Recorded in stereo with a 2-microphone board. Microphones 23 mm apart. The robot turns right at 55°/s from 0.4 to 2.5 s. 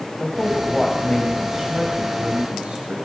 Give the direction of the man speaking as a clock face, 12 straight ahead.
7 o'clock.